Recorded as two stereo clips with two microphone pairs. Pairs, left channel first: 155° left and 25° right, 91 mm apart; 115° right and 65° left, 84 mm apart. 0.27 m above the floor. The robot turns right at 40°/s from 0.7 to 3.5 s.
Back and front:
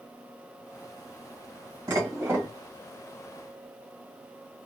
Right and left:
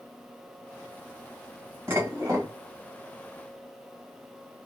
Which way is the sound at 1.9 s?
15° left.